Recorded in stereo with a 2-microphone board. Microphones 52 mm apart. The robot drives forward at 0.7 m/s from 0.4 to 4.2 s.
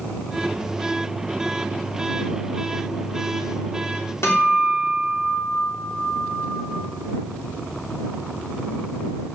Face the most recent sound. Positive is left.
turn(degrees=55)  # may be behind; listen again after turning